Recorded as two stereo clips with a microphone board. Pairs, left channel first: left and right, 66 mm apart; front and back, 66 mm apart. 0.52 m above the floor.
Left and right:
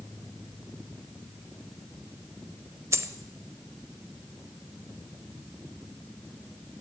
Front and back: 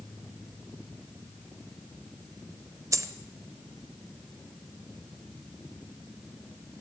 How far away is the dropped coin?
About 0.8 m.